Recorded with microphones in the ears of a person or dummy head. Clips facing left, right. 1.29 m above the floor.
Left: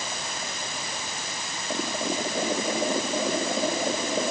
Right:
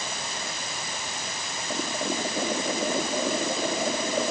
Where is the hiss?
I don't hear a hiss.